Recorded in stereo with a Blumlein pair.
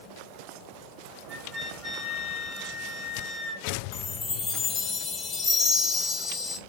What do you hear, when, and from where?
1.3 s a flute: 15° left, 1.5 m
3.9 s a chime: 25° left, 0.9 m